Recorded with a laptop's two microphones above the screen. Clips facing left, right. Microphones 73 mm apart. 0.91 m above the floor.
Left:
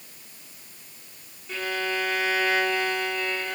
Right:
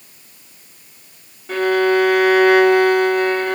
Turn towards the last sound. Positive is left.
turn(degrees=-65)  # may be behind; listen again after turning